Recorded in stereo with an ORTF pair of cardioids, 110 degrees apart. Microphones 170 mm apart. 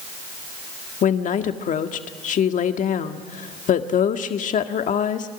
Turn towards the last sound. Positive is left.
turn(degrees=50)